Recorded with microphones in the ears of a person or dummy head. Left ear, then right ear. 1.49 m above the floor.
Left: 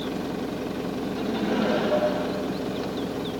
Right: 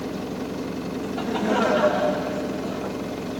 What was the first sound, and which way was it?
Laughter, 35° right (ahead or behind).